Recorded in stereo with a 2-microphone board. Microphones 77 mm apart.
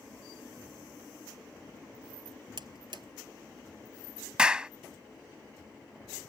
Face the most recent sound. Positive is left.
turn(degrees=-10)  # may be behind; listen again after turning